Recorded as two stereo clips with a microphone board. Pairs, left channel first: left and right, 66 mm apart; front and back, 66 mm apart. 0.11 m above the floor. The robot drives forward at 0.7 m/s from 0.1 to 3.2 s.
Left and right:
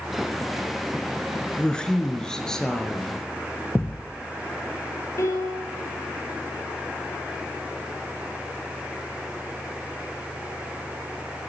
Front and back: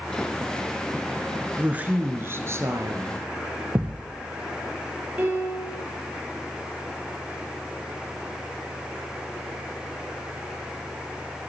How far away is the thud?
About 1.0 m.